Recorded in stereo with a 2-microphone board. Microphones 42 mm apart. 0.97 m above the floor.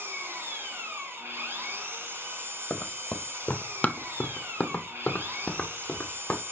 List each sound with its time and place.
0.0 s an engine running: 65° right (ahead or behind), 2.0 m
2.7 s running footsteps: 25° left (ahead or behind), 1.1 m; by 6.4 s 20° left (ahead or behind), 2 m